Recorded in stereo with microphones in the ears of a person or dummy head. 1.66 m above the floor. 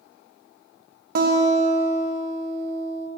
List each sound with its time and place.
1.1 s a guitar: 50° right (ahead or behind), 1.0 m